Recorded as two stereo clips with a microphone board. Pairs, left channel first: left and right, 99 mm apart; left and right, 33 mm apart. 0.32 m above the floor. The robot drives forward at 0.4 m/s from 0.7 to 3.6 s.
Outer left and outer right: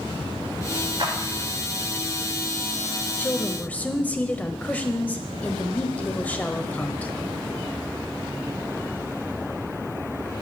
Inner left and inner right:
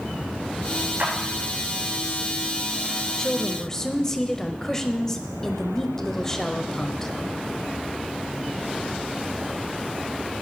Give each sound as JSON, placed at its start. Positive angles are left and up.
{"t": 1.0, "sound": "a clap", "side_deg": -60, "distance_m": 5.0}
{"t": 3.1, "sound": "a woman speaking", "side_deg": 15, "distance_m": 0.9}